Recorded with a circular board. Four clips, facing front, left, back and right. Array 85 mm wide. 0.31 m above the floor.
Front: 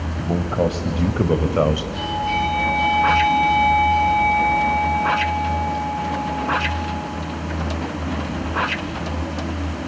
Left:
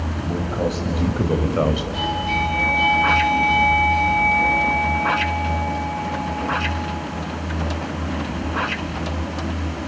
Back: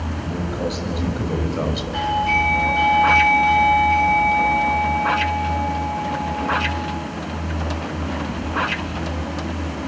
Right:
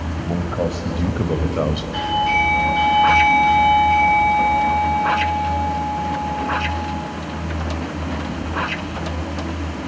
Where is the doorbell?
120° right, 6.5 m.